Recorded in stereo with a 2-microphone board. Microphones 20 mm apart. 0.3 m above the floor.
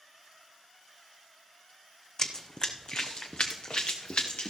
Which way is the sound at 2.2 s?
30° left (ahead or behind).